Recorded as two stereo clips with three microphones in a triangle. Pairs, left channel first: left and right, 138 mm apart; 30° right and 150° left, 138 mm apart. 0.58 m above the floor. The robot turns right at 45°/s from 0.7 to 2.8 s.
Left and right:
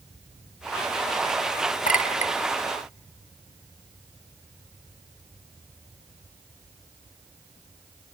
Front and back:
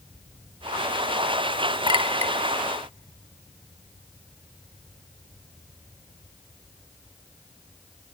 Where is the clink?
100° left, 0.9 m; by 2.3 s 120° left, 0.9 m.